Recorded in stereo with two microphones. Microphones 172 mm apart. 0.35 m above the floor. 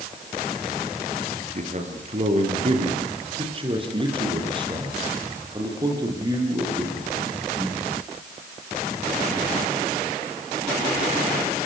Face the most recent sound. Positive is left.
turn(degrees=-20)  # may be behind; listen again after turning